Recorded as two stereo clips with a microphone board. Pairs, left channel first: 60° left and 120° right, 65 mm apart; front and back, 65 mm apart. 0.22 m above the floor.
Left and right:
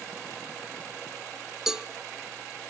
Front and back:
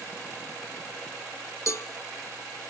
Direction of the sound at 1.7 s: 40° right.